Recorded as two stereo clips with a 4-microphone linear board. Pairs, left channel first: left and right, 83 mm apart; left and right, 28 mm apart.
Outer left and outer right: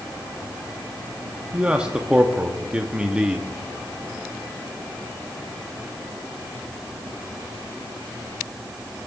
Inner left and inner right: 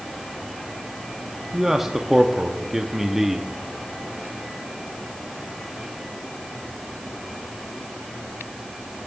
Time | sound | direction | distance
1.5 | a man speaking | 10° right (ahead or behind) | 0.7 m